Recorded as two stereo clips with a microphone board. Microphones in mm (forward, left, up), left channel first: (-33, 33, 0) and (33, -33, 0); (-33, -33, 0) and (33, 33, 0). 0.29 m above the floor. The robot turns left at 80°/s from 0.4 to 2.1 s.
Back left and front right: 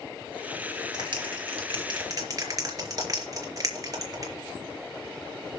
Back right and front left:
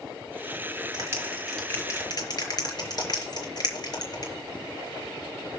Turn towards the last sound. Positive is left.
turn(degrees=-95)